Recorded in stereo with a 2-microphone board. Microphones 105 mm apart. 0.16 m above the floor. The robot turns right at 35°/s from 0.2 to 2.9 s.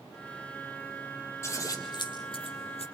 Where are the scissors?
25° left (ahead or behind), 4 m; by 2.9 s 70° left (ahead or behind), 4 m.